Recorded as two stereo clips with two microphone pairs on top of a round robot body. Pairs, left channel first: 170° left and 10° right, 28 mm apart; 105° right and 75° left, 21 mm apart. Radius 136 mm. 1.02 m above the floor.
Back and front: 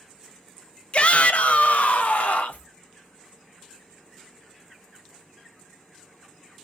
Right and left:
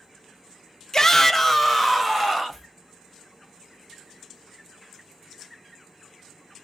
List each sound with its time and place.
0.9 s a shout: 160° right, 0.6 m; by 2.7 s 150° left, 1.2 m